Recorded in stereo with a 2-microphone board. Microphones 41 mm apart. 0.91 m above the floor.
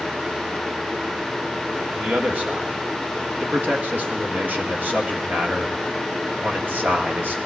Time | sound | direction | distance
1.9 | a man speaking | 50° right (ahead or behind) | 1.4 m